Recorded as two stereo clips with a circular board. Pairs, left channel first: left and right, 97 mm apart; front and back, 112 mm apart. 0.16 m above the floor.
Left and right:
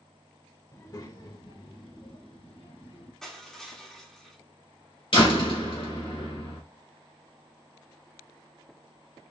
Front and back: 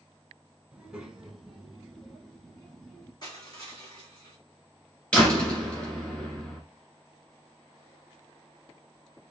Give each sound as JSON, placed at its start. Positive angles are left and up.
{"t": 0.7, "sound": "a child speaking", "azimuth_deg": 110, "distance_m": 0.9}
{"t": 3.2, "sound": "crushing", "azimuth_deg": 5, "distance_m": 1.6}
{"t": 5.1, "sound": "a door slam", "azimuth_deg": 80, "distance_m": 1.8}